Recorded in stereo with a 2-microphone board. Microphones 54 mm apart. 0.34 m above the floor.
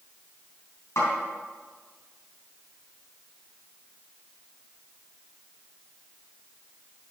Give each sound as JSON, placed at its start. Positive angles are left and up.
{"t": 1.0, "sound": "a snare drum", "side_deg": 65, "distance_m": 4.0}